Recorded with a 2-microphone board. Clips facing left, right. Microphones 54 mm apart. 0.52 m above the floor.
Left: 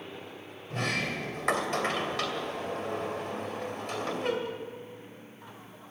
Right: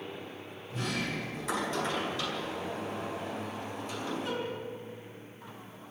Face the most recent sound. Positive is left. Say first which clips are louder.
# left 3 dB
turn(degrees=65)  # may be behind; listen again after turning